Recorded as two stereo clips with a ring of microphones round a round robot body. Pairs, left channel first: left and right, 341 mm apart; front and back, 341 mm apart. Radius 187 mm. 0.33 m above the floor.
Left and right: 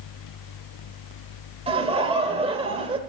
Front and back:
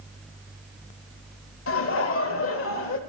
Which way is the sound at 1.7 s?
25° right.